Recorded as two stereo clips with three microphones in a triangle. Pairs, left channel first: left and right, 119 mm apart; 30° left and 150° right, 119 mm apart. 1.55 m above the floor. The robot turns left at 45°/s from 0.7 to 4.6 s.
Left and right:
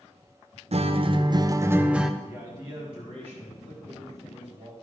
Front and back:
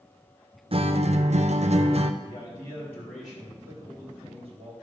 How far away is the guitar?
About 0.5 m.